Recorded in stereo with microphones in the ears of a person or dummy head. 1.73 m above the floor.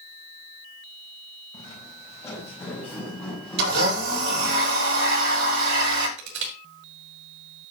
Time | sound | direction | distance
1.5 | footsteps | 20° left (ahead or behind) | 4.5 m
3.6 | a blender | 70° right (ahead or behind) | 7 m
6.2 | crushing | 75° right (ahead or behind) | 5.5 m